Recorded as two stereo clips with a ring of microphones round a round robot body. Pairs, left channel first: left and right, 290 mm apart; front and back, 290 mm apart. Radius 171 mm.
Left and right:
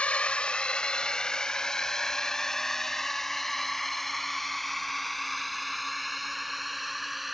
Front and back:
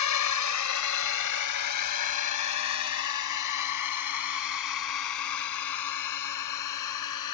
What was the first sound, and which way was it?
A drone, 5° left.